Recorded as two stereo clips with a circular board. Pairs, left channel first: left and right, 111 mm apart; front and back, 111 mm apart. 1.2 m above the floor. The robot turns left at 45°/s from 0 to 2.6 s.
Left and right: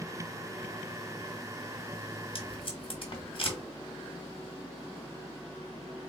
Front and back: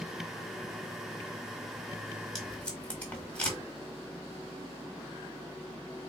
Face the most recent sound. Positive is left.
turn(degrees=75)